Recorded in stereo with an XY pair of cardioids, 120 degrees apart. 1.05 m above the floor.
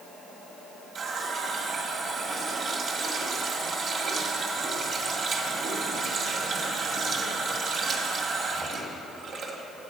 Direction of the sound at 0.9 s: 50° right.